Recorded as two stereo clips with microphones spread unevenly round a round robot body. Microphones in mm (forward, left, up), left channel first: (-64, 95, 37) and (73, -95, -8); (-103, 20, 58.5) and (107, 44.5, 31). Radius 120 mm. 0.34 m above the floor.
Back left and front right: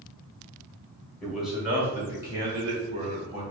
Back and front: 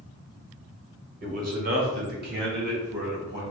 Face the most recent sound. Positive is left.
turn(degrees=5)